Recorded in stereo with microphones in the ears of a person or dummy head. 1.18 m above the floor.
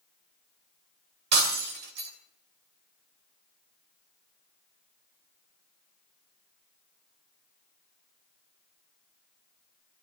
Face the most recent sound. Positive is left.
turn(degrees=-60)  # may be behind; listen again after turning